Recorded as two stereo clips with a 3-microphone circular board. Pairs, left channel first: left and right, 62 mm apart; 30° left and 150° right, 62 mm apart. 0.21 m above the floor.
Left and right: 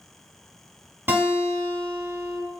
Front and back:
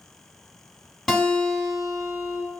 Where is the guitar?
60° right, 1.2 m.